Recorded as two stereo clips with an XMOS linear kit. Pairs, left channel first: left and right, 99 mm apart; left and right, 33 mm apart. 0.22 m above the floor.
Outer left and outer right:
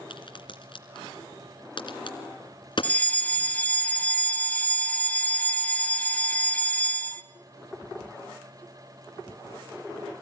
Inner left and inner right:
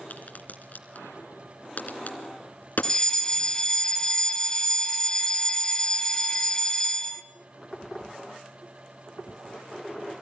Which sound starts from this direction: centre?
A fire alarm, at 2.8 s.